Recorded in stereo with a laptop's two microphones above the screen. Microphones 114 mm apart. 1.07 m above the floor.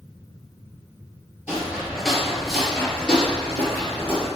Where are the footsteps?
10° right (ahead or behind), 1.2 m; by 4.3 s 15° left (ahead or behind), 1.6 m.